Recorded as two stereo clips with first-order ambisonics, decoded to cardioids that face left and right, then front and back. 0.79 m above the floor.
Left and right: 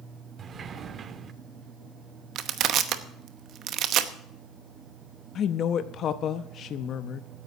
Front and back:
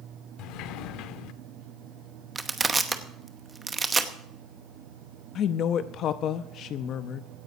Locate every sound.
0.4 s a sliding door: 30° right, 0.7 m
2.4 s crushing: 110° right, 0.9 m
5.3 s a woman speaking: 40° left, 0.6 m